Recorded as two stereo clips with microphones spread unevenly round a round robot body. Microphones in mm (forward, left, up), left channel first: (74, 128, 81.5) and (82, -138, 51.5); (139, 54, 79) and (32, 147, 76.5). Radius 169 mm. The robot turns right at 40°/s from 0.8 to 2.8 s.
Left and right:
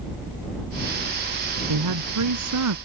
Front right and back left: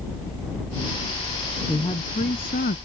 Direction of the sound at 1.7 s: 115° right.